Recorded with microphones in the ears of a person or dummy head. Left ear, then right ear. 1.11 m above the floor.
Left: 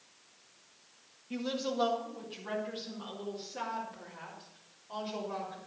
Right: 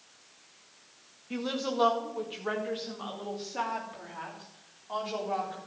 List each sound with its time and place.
1.3 s a woman speaking: 15° right (ahead or behind), 1.6 m; by 5.6 s 25° right (ahead or behind), 4 m